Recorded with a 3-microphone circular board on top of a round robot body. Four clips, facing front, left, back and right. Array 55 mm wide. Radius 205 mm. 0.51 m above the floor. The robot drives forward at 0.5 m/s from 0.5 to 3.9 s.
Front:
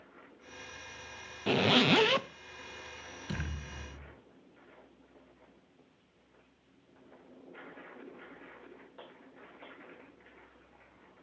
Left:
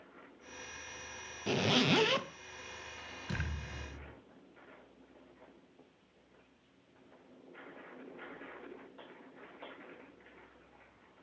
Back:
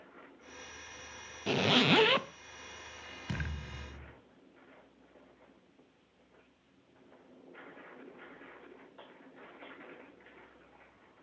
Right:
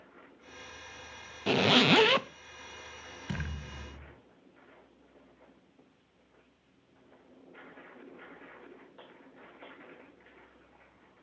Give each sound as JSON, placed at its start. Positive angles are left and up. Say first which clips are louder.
{"t": 1.5, "sound": "a zipper", "louder": "right 6 dB, front 1 dB", "azimuth_deg": -70, "distance_m": 1.0}
{"t": 3.3, "sound": "a thud", "louder": "right 2 dB, even", "azimuth_deg": -140, "distance_m": 6.0}